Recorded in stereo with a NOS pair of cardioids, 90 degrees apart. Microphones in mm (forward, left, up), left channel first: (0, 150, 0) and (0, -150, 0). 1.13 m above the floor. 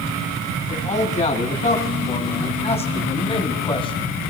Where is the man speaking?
25° left, 9 m; by 4.0 s 15° left, 7 m.